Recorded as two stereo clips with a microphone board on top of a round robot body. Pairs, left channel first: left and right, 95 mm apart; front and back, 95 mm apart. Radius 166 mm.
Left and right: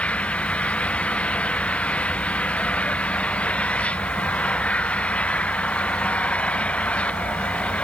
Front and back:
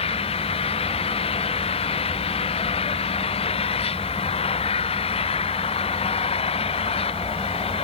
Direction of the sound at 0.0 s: 10° left.